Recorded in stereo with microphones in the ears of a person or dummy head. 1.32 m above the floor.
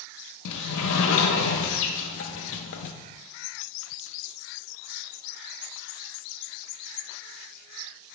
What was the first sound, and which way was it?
A sliding door, 70° left (ahead or behind).